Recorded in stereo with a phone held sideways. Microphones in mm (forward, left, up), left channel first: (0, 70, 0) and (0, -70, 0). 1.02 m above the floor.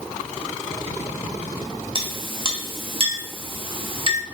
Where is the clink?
40° right (ahead or behind), 0.8 m.